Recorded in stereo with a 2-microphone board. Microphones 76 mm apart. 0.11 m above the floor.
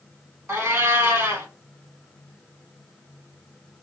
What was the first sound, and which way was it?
A cat meowing, 30° right (ahead or behind).